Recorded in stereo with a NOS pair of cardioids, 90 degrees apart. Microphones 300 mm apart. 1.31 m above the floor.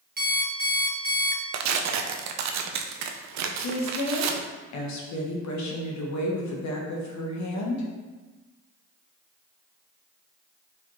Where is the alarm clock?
30° right, 1.1 m.